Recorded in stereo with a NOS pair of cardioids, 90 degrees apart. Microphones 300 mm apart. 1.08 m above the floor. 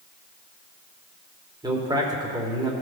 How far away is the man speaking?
About 3 m.